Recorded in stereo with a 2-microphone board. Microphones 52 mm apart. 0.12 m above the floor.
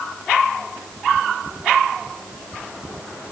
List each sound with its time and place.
Only background noise.